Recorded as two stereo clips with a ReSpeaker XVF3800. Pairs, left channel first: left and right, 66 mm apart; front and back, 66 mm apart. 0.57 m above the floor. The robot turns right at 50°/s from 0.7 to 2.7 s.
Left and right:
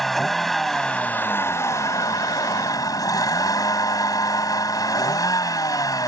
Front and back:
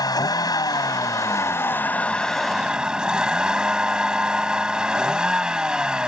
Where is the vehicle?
5° left; by 6.1 s 105° left.